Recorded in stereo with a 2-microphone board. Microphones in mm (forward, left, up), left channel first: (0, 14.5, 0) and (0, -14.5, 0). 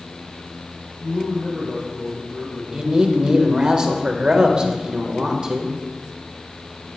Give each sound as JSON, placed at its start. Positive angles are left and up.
{"t": 1.0, "sound": "a man speaking", "side_deg": 65, "distance_m": 3.5}
{"t": 2.7, "sound": "a man speaking", "side_deg": -35, "distance_m": 1.0}